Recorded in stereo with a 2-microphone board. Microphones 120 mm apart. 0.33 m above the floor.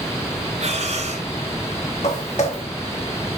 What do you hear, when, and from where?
0.6 s breathing: 65° right (ahead or behind), 2 m
2.0 s footsteps: 70° left (ahead or behind), 3.5 m